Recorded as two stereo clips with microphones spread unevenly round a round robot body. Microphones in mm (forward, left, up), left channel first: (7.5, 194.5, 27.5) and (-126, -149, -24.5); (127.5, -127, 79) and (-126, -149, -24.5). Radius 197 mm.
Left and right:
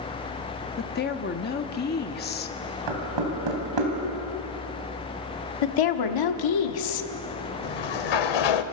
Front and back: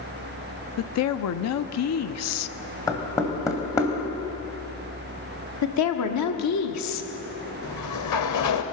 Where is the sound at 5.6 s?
45° left, 1.3 m.